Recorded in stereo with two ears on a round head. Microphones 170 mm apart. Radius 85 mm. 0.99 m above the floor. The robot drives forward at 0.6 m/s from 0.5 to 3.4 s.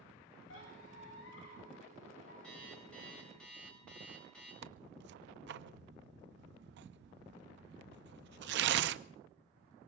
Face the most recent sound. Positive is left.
turn(degrees=-65)  # may be behind; listen again after turning